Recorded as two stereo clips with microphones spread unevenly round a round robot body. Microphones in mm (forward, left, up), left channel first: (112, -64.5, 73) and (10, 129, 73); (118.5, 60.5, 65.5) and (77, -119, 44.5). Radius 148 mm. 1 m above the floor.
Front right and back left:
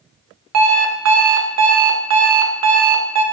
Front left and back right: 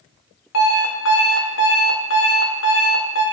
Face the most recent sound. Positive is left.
turn(degrees=115)